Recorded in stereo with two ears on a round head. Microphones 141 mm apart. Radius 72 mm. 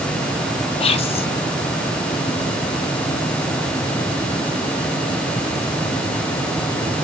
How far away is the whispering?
About 0.6 m.